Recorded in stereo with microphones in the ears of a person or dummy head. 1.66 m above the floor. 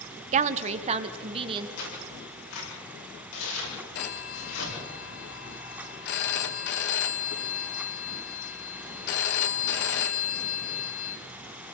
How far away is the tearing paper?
About 8.5 m.